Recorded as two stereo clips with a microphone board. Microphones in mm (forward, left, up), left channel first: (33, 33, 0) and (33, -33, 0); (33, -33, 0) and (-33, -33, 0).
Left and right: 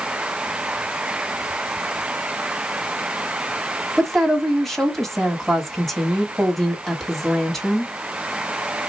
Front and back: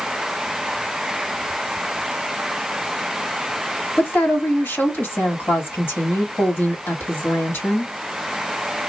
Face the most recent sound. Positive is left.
turn(degrees=10)